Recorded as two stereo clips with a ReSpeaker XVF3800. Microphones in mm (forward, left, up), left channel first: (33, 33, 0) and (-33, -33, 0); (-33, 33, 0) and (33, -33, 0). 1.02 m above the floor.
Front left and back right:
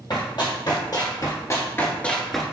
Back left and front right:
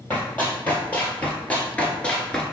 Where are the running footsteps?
65° left, 2.0 m; by 2.5 s 145° left, 0.9 m.